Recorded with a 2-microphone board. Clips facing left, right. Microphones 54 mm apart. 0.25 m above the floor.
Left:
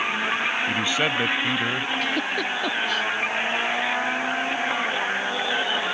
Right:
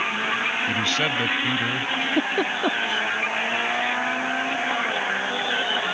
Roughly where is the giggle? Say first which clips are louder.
Right 2 dB; right.